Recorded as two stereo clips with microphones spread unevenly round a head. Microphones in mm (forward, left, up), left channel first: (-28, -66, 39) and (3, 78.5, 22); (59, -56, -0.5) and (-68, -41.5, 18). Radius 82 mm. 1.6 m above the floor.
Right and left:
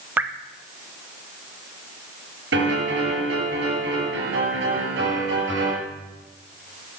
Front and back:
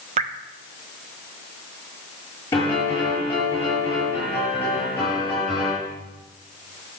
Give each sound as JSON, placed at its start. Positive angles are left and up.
{"t": 0.2, "sound": "dripping", "azimuth_deg": 160, "distance_m": 0.8}
{"t": 2.5, "sound": "a piano", "azimuth_deg": 70, "distance_m": 7.5}